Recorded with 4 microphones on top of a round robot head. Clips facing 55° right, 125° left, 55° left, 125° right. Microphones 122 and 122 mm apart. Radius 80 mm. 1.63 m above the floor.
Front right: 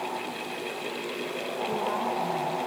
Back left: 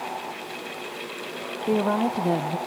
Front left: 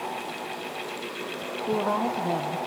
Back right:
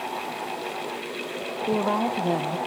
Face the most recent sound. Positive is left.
turn(degrees=160)